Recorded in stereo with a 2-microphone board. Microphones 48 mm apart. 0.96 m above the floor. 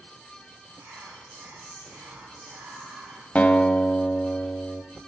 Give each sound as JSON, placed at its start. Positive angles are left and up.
{"t": 0.8, "sound": "whispering", "side_deg": -75, "distance_m": 3.0}
{"t": 3.4, "sound": "a guitar", "side_deg": 25, "distance_m": 0.7}